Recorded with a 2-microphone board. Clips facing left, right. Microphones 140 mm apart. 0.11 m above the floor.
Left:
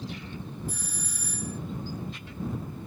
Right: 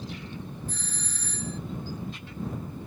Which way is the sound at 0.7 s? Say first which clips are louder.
Left 1 dB; 10° left (ahead or behind).